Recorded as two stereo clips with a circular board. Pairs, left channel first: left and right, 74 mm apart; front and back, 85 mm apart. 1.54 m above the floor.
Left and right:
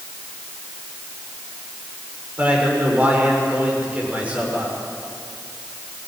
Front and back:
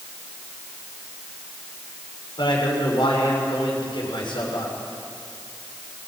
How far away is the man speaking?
About 6.5 m.